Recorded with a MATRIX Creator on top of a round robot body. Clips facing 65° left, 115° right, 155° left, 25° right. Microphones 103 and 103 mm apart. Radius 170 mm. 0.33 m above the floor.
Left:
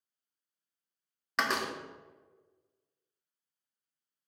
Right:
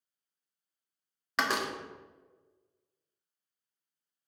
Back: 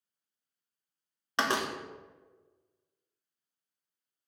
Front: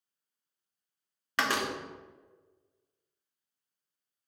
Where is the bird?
No bird in this recording.